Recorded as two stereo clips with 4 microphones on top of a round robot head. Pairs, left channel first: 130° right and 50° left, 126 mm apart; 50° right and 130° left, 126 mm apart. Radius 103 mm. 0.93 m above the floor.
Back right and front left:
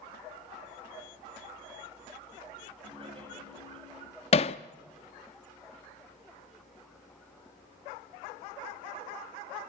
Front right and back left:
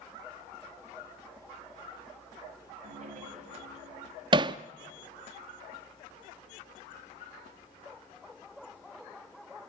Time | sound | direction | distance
2.8 | laughter | 100° left | 7.5 m
4.3 | hammering | 175° right | 0.5 m